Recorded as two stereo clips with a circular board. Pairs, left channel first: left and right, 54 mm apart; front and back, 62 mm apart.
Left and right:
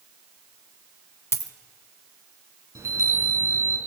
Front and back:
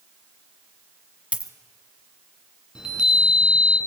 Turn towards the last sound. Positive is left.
turn(degrees=-100)